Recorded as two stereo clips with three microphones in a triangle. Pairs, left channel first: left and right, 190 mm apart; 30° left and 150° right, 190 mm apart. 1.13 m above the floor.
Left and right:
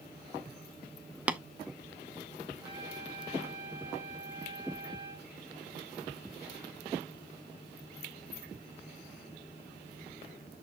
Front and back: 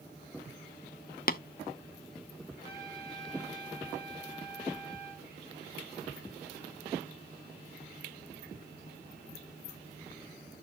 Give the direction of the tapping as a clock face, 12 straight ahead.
12 o'clock.